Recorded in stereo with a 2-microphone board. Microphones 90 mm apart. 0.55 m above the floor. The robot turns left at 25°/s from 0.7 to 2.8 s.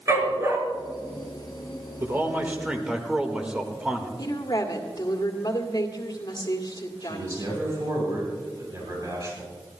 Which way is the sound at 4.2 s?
50° left (ahead or behind).